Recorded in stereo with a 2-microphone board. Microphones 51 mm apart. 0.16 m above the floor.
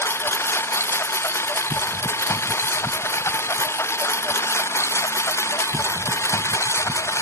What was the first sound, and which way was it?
A lawn mower, 55° left (ahead or behind).